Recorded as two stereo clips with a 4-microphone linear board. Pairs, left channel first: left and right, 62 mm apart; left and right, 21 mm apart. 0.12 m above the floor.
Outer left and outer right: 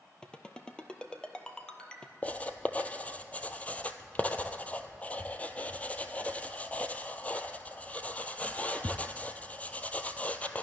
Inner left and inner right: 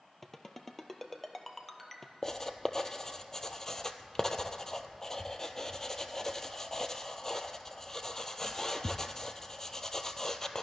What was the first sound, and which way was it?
A ringtone, 15° left (ahead or behind).